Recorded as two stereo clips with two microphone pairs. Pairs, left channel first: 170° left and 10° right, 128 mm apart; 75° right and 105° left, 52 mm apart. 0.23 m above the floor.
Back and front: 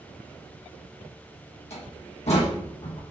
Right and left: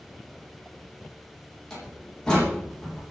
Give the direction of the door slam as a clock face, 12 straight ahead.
5 o'clock.